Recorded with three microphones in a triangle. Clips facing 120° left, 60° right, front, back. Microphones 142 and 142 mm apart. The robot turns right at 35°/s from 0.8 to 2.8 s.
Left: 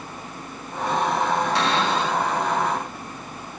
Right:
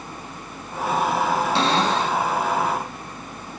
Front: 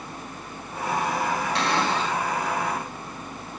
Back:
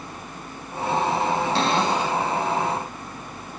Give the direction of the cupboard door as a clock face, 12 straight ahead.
4 o'clock.